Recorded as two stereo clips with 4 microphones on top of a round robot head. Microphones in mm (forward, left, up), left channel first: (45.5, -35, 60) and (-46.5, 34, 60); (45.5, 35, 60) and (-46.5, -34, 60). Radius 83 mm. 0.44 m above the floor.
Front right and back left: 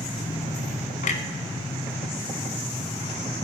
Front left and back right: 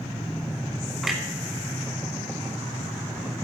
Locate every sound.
1.0 s a clunk: 55° right, 0.9 m